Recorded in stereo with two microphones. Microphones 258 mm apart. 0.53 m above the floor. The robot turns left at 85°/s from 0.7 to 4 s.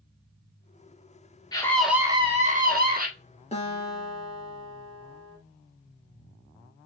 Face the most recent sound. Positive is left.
turn(degrees=115)